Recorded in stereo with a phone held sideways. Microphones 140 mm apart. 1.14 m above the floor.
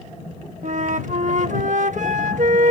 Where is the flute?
60° right (ahead or behind).